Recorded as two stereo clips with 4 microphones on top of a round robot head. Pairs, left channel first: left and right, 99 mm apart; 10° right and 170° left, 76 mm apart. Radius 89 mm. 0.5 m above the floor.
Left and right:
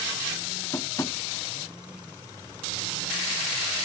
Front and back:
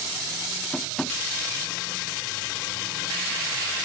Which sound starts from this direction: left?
Tapping, at 0.7 s.